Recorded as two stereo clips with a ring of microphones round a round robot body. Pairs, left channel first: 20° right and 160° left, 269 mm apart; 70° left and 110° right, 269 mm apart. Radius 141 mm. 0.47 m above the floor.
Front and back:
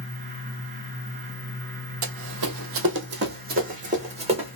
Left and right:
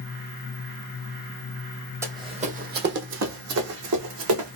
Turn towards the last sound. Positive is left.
turn(degrees=-135)